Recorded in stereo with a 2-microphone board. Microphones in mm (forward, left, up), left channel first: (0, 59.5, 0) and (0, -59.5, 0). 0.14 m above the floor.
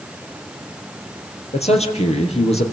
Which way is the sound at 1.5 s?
65° left (ahead or behind).